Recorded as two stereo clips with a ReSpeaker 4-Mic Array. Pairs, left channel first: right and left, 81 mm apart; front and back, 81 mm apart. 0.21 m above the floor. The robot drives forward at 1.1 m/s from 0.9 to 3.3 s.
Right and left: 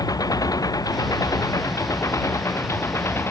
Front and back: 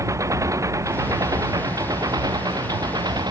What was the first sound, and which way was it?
An engine running, 130° right.